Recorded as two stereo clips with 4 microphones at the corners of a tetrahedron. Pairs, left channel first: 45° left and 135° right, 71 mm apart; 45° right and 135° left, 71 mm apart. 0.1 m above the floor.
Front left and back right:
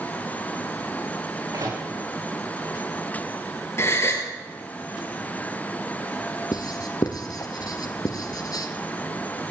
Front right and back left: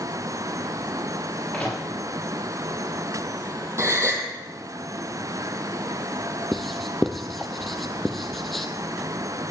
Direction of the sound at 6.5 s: 40° left.